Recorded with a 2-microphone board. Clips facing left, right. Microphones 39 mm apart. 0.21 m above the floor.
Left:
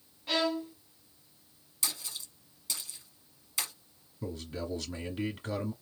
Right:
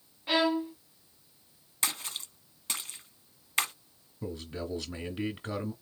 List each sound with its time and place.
0.3 s a violin: 20° right (ahead or behind), 0.6 m
1.8 s a splash: 50° right (ahead or behind), 0.8 m
4.2 s a man speaking: 15° right (ahead or behind), 1.2 m